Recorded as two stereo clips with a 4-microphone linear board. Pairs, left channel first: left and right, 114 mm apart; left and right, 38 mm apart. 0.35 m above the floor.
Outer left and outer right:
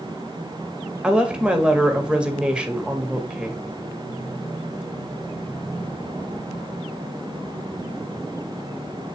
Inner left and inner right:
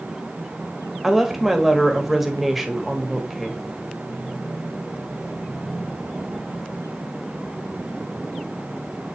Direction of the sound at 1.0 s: 10° right (ahead or behind).